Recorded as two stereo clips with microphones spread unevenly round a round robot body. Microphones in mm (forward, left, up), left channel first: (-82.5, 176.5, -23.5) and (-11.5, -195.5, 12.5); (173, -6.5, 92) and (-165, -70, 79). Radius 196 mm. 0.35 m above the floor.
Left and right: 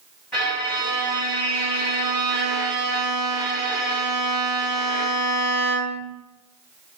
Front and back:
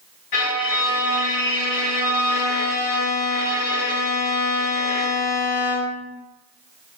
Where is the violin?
20° left, 1.8 m.